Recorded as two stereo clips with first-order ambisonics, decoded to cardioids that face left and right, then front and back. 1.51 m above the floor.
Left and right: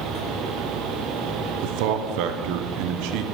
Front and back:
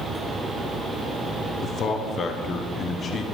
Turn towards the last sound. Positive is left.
turn(degrees=-65)